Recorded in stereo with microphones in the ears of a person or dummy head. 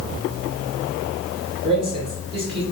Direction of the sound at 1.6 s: 30° right (ahead or behind).